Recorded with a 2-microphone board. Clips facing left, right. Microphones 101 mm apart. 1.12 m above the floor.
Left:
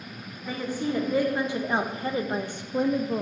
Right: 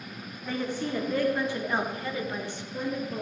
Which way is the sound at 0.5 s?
5° left (ahead or behind).